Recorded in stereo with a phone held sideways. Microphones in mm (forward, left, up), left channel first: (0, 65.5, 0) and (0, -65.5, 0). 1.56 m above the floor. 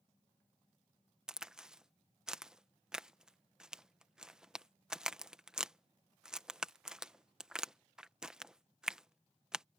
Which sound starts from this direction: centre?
A crack, at 1.3 s.